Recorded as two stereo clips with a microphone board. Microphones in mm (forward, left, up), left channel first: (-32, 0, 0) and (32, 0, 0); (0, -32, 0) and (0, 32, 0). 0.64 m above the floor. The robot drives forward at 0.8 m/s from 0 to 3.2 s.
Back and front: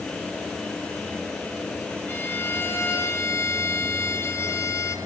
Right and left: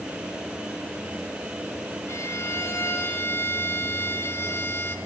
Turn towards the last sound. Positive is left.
turn(degrees=-140)